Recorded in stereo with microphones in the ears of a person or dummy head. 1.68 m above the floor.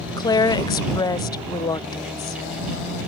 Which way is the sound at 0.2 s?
20° left (ahead or behind).